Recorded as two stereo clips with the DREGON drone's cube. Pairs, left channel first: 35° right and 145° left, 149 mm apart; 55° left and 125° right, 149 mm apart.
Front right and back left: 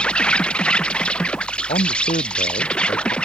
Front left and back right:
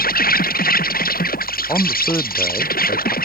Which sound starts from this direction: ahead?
A man speaking, at 1.7 s.